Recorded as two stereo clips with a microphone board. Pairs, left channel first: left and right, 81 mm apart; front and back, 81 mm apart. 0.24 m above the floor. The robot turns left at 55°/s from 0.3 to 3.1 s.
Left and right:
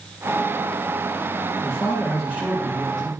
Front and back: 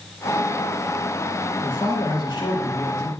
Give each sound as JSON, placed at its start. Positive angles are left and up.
{"t": 1.6, "sound": "a man speaking", "azimuth_deg": 60, "distance_m": 4.0}